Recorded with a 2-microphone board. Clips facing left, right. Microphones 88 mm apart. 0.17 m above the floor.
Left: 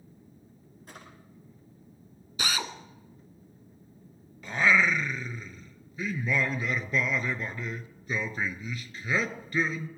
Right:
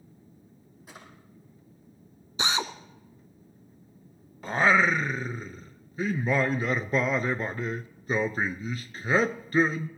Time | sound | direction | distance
0.9 | a drawer | 5° right (ahead or behind) | 4.5 m
2.4 | a drill | 25° right (ahead or behind) | 1.0 m
4.4 | singing | 40° right (ahead or behind) | 0.6 m